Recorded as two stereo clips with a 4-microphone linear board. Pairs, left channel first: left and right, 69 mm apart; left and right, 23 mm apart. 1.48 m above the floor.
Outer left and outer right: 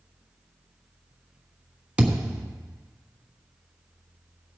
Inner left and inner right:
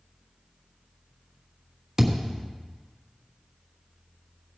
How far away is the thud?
About 1.6 m.